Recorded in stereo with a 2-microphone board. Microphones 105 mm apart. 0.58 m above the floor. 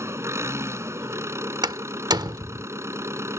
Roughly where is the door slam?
Right.